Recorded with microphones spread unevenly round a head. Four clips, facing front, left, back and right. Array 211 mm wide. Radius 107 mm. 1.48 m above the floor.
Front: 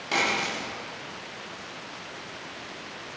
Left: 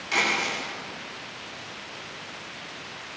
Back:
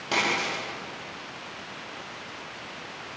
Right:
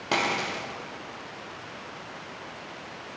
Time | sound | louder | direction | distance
0.1 | a dropped coin | even, even | 95° right | 7.5 m